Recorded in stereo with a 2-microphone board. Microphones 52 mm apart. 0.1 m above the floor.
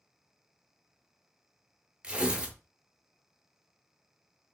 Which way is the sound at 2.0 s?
20° right (ahead or behind).